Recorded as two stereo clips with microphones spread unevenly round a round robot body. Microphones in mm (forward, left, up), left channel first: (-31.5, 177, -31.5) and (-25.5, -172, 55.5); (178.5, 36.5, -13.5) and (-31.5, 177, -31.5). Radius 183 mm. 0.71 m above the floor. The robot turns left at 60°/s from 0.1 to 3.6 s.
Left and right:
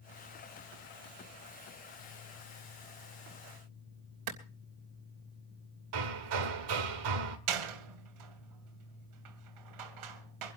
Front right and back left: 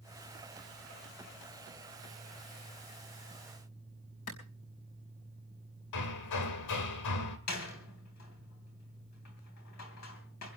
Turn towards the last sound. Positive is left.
turn(degrees=-85)